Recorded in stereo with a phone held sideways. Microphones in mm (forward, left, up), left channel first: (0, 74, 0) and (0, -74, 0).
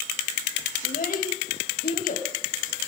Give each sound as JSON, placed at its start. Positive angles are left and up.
{"t": 0.8, "sound": "a child speaking", "side_deg": 80, "distance_m": 3.0}